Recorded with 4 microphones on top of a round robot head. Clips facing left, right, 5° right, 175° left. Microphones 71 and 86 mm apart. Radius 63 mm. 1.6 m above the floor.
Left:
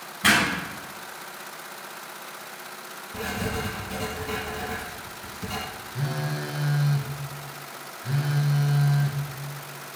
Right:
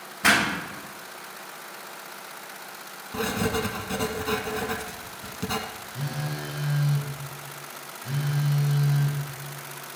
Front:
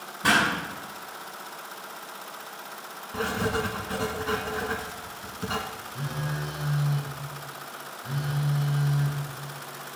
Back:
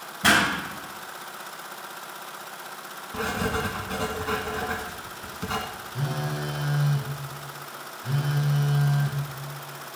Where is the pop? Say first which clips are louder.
Even, back 2 dB; 160° right, 7 m.